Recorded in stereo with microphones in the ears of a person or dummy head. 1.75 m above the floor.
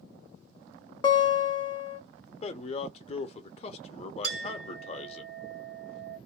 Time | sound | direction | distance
1.0 | a guitar | 25° left (ahead or behind) | 0.6 m
2.4 | a man speaking | 35° left (ahead or behind) | 0.8 m
4.2 | a clink | 60° right (ahead or behind) | 1.6 m